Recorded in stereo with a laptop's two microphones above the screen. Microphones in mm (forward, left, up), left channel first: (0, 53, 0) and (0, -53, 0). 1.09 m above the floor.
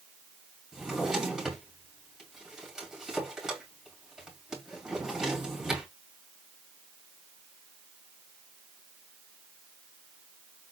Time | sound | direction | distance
0.7 | a drawer | 5° right (ahead or behind) | 3.5 m